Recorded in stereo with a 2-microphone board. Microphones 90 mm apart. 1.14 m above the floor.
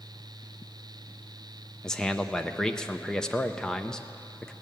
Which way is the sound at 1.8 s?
5° left (ahead or behind).